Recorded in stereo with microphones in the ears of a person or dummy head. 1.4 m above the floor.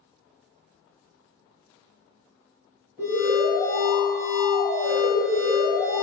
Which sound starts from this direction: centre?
An alarm, at 3.0 s.